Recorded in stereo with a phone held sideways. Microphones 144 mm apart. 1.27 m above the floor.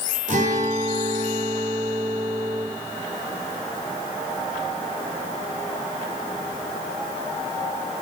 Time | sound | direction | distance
0.3 | a guitar | 60° right (ahead or behind) | 3.5 m